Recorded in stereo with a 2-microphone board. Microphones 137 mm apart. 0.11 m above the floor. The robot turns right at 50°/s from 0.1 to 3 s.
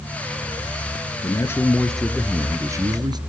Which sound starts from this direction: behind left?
A man speaking, at 1.2 s.